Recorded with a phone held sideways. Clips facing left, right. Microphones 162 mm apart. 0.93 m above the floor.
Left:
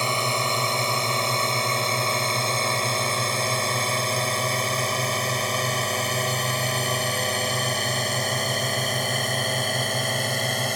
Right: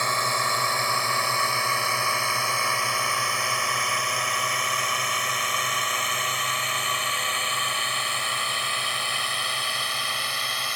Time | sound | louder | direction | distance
0.0 | a drone | left 2 dB | 20° left (ahead or behind) | ?